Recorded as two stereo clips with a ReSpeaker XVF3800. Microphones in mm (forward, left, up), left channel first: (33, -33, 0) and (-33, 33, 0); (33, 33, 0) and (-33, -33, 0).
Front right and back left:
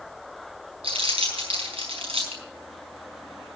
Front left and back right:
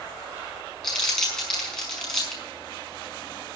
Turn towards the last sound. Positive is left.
turn(degrees=130)